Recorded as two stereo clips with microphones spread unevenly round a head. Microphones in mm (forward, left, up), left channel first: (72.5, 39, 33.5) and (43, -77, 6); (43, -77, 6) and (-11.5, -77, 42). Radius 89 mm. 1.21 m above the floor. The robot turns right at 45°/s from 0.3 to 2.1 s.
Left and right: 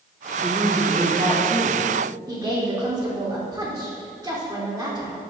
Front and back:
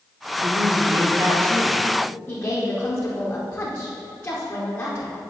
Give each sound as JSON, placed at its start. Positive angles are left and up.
{"t": 0.4, "sound": "a woman speaking", "azimuth_deg": 165, "distance_m": 2.5}
{"t": 2.3, "sound": "a woman speaking", "azimuth_deg": -45, "distance_m": 4.5}